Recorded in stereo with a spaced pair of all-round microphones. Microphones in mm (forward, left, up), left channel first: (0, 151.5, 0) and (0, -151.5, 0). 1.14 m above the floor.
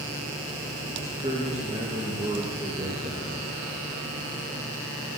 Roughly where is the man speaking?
Right.